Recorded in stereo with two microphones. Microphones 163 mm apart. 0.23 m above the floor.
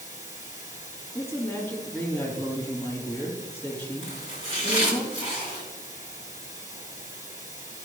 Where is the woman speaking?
15° left (ahead or behind), 4 m.